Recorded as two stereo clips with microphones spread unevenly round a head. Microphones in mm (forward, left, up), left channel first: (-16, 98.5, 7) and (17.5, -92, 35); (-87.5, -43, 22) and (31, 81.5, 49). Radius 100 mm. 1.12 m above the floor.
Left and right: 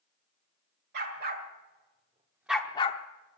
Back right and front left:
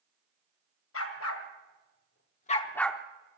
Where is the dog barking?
115° right, 2.0 m; by 3.4 s 80° left, 1.0 m.